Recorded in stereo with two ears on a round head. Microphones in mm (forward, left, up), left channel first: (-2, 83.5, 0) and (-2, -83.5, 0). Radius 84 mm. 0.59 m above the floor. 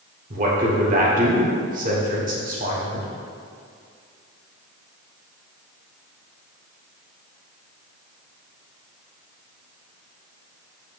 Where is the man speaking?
45° right (ahead or behind), 1.8 m.